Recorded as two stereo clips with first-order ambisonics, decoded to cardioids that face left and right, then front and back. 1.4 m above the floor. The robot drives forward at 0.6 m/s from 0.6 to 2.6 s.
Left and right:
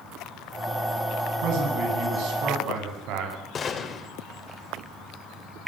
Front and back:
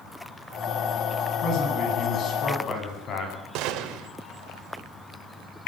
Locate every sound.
1.4 s a man speaking: 55° right, 9.5 m; by 3.5 s 60° right, 9 m
3.5 s a gunshot: 155° left, 3 m